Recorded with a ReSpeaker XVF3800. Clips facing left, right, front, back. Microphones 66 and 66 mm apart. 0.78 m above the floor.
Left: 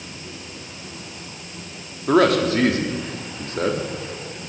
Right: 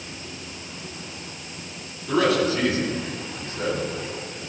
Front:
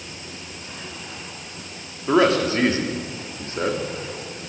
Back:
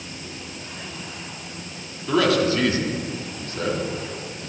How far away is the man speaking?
About 1.1 m.